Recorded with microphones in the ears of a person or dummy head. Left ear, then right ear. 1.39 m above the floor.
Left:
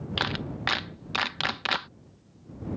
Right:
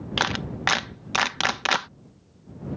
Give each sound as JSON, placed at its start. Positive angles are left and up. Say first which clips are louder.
{"t": 0.2, "sound": "a clap", "louder": "right 4 dB", "side_deg": -15}